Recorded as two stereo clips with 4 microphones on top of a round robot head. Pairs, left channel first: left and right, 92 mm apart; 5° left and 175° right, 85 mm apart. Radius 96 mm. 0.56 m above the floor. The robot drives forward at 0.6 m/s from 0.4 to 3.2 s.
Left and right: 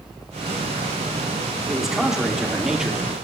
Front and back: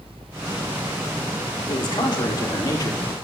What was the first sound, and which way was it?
A man speaking, 5° right.